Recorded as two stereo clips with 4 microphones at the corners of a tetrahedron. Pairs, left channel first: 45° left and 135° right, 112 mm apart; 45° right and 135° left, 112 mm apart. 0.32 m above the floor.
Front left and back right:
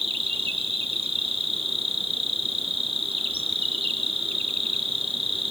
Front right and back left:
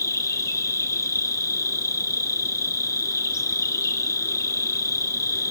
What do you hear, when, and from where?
0.0 s an insect: 105° right, 2.5 m